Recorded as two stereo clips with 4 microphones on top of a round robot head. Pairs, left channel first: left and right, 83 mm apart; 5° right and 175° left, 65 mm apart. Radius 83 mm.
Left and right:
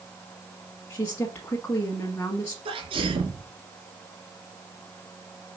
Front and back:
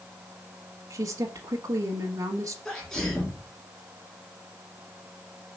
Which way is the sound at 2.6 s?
90° right.